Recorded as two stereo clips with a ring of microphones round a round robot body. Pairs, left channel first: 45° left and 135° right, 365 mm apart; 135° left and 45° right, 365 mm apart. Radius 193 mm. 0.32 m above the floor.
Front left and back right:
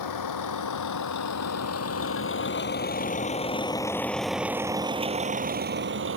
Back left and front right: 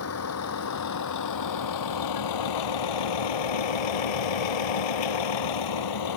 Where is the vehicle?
85° left; by 6.2 s 170° left.